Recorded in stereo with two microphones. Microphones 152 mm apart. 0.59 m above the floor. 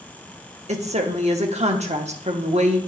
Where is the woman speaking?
45° right (ahead or behind), 0.9 m.